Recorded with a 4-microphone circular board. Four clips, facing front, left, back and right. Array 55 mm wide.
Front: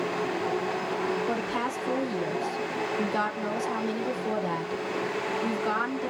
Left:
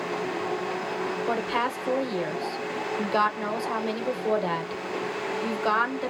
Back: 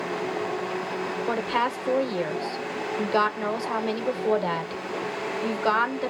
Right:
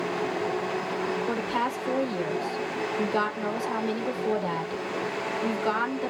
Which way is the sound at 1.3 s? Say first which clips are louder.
Left 1 dB, back 4 dB; 150° left.